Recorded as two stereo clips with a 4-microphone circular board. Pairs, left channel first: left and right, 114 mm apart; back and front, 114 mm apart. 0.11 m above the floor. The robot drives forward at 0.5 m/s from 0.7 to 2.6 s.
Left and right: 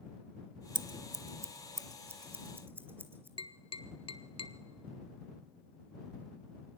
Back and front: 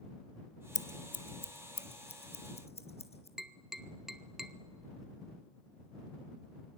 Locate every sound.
0.8 s scissors: 130° right, 0.6 m; by 3.3 s 160° right, 1.4 m
3.4 s tapping: 85° left, 0.8 m